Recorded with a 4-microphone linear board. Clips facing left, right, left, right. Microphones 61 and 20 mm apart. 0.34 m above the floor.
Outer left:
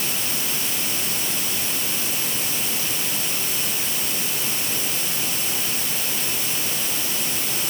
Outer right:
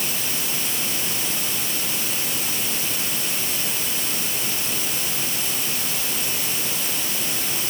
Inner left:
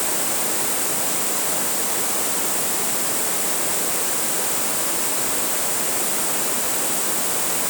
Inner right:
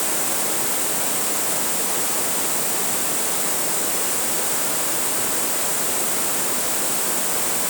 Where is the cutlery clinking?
I don't hear cutlery clinking.